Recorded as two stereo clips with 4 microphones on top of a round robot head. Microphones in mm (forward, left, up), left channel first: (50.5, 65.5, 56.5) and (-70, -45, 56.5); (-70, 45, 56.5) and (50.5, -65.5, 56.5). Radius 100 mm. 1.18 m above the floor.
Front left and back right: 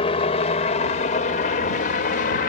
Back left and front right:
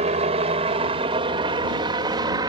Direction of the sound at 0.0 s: 5° right.